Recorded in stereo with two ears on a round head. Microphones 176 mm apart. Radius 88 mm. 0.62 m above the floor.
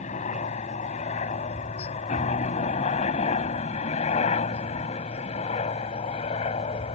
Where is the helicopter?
35° left (ahead or behind); by 7.0 s 30° left (ahead or behind).